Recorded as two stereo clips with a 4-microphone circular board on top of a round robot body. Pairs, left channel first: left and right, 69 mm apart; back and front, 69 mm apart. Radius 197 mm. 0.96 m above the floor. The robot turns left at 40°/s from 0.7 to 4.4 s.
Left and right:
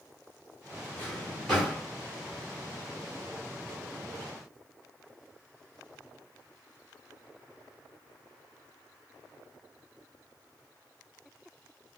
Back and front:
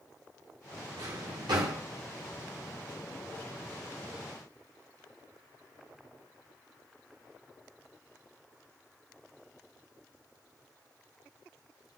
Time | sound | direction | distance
1.0 | a drawer | 30° left | 1.1 m